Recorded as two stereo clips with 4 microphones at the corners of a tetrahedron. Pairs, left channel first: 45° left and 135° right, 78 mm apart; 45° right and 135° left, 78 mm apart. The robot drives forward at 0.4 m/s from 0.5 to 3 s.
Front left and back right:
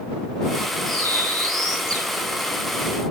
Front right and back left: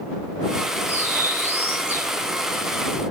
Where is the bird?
160° right, 8 m.